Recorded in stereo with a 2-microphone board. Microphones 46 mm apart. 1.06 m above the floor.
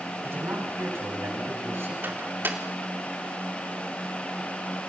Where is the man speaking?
65° right (ahead or behind), 8.5 m; by 1.9 s 70° right (ahead or behind), 7 m.